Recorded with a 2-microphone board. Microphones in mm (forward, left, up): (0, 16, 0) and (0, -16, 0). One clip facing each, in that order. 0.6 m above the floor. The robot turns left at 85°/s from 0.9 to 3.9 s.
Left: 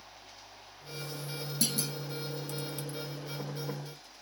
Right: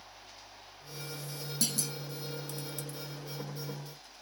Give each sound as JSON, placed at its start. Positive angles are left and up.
{"t": 1.6, "sound": "a clunk", "side_deg": 5, "distance_m": 1.1}